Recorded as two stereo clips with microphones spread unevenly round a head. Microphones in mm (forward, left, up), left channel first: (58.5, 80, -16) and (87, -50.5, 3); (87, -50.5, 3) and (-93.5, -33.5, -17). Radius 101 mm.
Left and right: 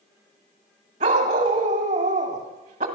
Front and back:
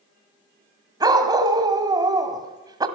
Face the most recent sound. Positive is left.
turn(degrees=-115)